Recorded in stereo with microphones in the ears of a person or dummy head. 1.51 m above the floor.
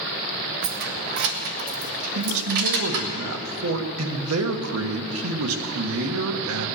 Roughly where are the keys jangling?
Right.